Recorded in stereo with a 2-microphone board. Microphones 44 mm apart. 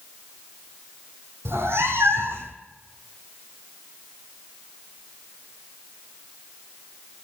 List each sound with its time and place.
1.4 s a cat meowing: 70° right (ahead or behind), 1.0 m